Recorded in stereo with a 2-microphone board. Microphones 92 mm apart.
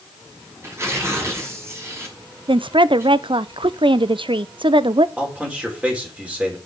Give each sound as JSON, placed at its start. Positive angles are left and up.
{"t": 0.6, "sound": "tearing paper", "side_deg": -30, "distance_m": 5.5}
{"t": 2.5, "sound": "a woman speaking", "side_deg": -65, "distance_m": 0.7}
{"t": 5.2, "sound": "a man speaking", "side_deg": -15, "distance_m": 5.0}